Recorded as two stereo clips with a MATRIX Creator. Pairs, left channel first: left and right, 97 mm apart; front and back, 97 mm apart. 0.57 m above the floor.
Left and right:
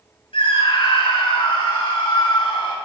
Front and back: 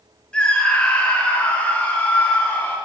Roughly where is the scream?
Left.